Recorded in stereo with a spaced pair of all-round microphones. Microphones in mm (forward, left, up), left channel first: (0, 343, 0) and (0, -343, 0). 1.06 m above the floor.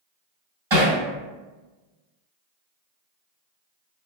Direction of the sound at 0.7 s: 40° right (ahead or behind).